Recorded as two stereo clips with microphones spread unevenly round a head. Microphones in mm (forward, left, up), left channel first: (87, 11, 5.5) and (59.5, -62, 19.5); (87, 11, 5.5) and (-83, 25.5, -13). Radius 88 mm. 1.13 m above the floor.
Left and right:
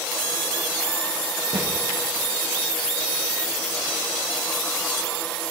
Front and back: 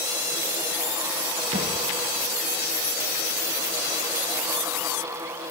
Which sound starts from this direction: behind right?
A thud, at 1.5 s.